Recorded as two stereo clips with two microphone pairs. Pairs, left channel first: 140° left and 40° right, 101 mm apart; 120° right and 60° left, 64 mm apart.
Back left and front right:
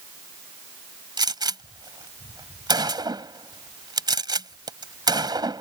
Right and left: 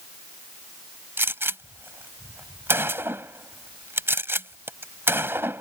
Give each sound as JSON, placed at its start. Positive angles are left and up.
{"t": 1.2, "sound": "a gunshot", "azimuth_deg": 10}